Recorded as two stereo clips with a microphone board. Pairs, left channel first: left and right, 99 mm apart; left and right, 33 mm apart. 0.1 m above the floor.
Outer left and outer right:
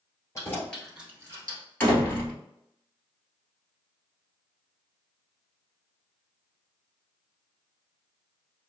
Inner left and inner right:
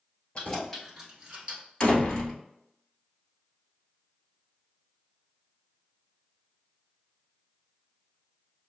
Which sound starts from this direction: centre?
A door slam, at 1.8 s.